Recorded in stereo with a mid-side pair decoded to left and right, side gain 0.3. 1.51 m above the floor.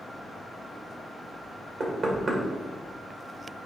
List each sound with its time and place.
1.8 s knocking: 65° right, 2.0 m